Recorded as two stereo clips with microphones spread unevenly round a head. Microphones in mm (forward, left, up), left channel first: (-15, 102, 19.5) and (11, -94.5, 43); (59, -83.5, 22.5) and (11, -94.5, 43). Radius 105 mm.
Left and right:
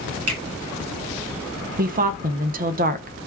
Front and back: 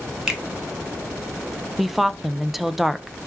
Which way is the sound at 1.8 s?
50° right.